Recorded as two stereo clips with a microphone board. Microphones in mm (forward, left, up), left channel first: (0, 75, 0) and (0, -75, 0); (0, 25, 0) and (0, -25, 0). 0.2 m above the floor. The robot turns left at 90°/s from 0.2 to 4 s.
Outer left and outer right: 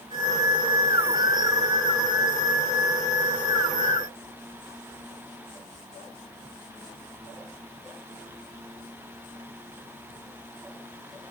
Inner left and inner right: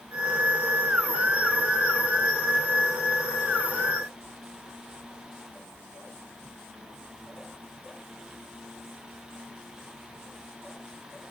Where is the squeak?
I don't hear a squeak.